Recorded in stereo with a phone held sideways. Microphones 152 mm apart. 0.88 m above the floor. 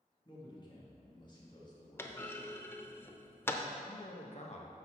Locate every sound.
0.2 s a man speaking: 30° left (ahead or behind), 1.8 m
2.0 s a clunk: 15° left (ahead or behind), 0.5 m
3.8 s a man speaking: 50° left (ahead or behind), 0.9 m